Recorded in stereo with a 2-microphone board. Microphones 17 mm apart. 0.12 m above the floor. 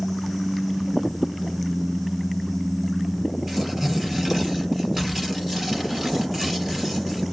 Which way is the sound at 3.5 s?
25° right (ahead or behind).